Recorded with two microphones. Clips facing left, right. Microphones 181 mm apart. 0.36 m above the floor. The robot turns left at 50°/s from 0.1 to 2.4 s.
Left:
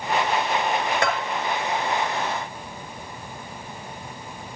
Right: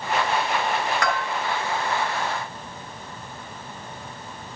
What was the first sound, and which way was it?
A bell, 25° left (ahead or behind).